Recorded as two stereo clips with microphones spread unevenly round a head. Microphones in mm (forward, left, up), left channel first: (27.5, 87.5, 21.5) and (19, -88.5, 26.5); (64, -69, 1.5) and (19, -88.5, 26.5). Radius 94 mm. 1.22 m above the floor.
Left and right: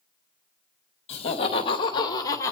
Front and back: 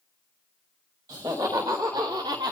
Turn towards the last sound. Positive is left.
turn(degrees=165)